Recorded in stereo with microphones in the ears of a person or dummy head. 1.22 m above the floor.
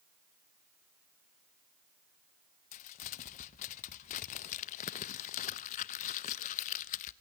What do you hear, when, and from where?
2.7 s crumpling: 40° left (ahead or behind), 0.6 m